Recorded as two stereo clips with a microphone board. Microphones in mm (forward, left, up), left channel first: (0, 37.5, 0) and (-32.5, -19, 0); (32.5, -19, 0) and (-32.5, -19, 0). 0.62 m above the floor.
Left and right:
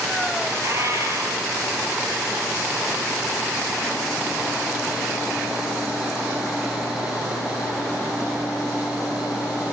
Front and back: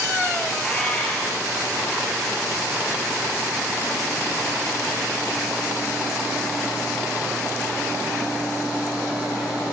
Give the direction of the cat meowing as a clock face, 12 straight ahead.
2 o'clock.